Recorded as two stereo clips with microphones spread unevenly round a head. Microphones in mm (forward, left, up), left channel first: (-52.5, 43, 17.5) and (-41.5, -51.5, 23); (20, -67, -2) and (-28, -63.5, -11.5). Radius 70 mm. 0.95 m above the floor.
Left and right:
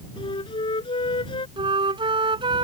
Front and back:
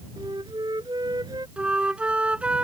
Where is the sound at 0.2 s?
130° left.